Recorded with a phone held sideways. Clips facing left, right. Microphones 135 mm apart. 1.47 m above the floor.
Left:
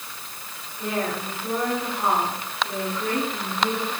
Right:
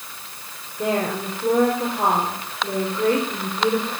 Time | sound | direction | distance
0.8 | a woman speaking | 80° right | 4.5 m